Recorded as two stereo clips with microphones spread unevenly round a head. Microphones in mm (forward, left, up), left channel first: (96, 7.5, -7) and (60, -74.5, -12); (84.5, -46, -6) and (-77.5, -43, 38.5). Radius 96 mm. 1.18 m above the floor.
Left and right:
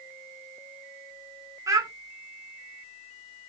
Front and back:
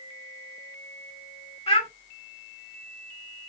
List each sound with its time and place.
1.7 s a child speaking: 65° right, 3 m